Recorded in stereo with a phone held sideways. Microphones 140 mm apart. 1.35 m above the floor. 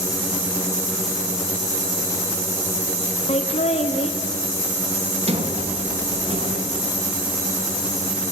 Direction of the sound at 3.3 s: 50° left (ahead or behind).